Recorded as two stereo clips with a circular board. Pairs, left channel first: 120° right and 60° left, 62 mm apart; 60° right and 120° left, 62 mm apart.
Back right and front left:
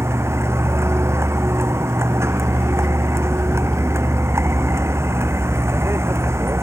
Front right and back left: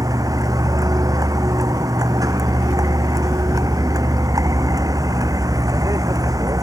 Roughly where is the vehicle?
Left.